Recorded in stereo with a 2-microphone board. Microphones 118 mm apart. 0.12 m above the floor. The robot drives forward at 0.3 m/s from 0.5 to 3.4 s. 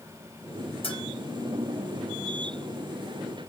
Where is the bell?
50° left (ahead or behind), 2.5 m.